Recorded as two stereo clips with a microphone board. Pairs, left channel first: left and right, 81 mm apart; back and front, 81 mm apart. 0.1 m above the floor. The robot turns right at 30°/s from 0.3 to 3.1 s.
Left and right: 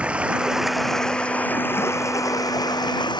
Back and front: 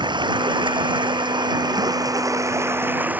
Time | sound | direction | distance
0.0 | running water | 15° right | ?